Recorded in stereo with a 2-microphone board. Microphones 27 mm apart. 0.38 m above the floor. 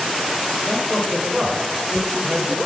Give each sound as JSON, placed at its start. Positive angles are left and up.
{"t": 0.7, "sound": "a man speaking", "side_deg": 10, "distance_m": 1.8}